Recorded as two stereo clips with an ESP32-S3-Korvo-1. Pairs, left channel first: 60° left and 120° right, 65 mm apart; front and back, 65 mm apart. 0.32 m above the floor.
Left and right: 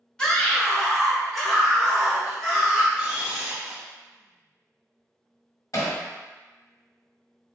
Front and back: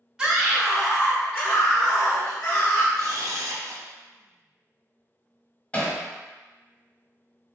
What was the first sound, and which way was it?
A scream, 115° left.